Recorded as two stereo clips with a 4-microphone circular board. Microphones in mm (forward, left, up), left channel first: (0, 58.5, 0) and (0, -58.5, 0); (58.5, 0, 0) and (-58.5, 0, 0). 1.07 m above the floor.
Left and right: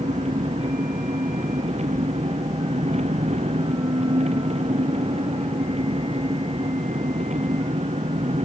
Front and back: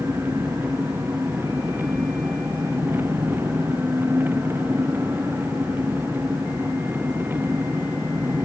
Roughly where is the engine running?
Right.